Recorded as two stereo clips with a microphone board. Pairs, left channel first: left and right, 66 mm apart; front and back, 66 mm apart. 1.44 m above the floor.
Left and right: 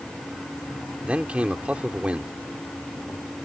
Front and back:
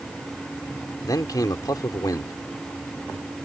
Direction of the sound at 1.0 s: 20° right.